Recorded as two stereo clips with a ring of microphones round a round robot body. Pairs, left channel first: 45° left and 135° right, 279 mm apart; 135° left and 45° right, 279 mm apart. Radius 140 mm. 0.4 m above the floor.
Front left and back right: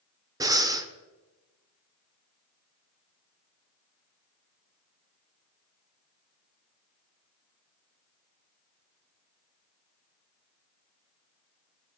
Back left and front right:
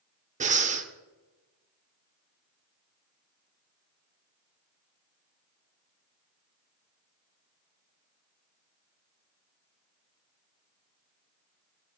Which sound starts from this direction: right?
Breathing, at 0.4 s.